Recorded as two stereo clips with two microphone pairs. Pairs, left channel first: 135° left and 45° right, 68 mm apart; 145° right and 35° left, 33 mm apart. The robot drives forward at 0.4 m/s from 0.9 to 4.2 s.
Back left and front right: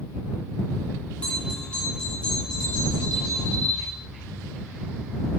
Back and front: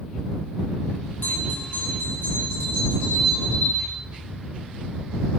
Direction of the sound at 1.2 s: 155° right.